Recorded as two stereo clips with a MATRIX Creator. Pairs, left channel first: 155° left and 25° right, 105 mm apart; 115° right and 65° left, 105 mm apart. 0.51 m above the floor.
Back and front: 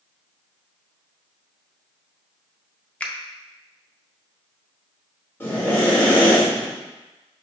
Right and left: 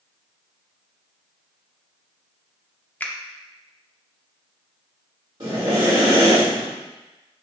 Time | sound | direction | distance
3.0 | a finger snap | 150° right | 0.5 m
5.4 | breathing | 95° left | 1.6 m